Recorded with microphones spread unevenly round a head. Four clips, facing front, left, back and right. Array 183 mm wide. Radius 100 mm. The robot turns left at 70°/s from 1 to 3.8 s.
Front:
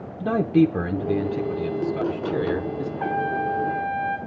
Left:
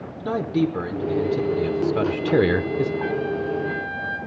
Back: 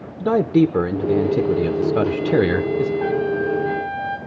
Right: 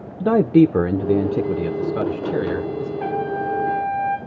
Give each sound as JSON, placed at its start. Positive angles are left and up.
{"t": 0.2, "sound": "a man speaking", "azimuth_deg": -120, "distance_m": 0.9}
{"t": 3.0, "sound": "a trumpet", "azimuth_deg": -70, "distance_m": 3.5}